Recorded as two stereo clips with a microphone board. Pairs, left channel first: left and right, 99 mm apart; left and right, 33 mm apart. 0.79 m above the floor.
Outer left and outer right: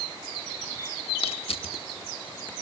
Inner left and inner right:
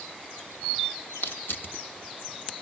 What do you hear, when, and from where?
1.2 s crushing: 80° left, 1.4 m